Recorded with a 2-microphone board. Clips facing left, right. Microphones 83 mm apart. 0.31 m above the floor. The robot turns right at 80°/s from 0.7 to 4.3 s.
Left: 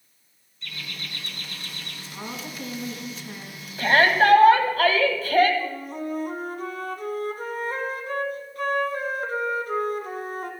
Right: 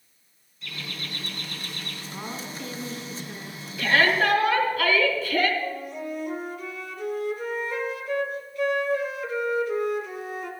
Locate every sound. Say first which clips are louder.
0.6 s laughter: right 1 dB; 175° right, 4 m; by 2.0 s 70° right, 4 m
2.1 s a woman speaking: left 1 dB; 15° right, 3 m; by 3.7 s 110° left, 3 m
3.8 s a shout: left 3 dB; 60° left, 2 m; by 5.5 s 100° left, 2 m
5.6 s a flute: left 1 dB; 50° left (ahead or behind), 1.3 m